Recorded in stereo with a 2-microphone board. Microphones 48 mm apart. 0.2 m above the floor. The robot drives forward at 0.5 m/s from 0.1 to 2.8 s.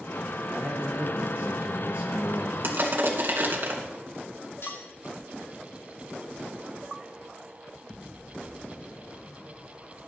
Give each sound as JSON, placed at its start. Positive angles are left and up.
{"t": 0.5, "sound": "a man speaking", "side_deg": -35, "distance_m": 3.5}
{"t": 2.6, "sound": "crushing", "side_deg": -55, "distance_m": 2.5}
{"t": 4.6, "sound": "cutlery clinking", "side_deg": 75, "distance_m": 5.5}